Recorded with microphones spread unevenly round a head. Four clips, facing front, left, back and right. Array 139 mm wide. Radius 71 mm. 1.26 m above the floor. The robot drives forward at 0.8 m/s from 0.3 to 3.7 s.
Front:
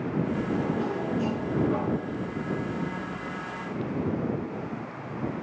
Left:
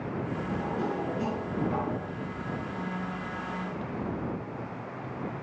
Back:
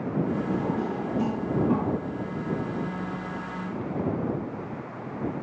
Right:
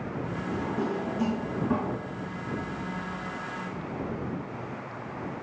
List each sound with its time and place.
0.5 s a drawer: 135° right, 3.5 m; by 2.0 s 145° right, 4.5 m